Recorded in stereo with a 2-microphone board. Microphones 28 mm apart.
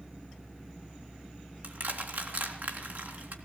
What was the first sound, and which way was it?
Crushing, 75° right (ahead or behind).